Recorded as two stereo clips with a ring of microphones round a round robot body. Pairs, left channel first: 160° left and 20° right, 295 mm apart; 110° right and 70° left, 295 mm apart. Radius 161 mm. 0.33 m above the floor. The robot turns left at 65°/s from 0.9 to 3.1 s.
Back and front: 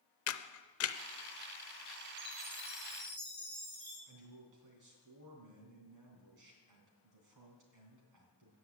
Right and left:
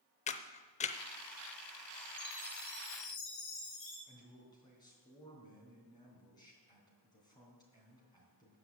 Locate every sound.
0.3 s a camera shutter: 175° right, 0.6 m; by 1.0 s straight behind, 0.6 m
2.2 s a chime: 35° right, 4.5 m; by 4.0 s 95° right, 4.5 m
4.1 s a man speaking: 35° right, 3 m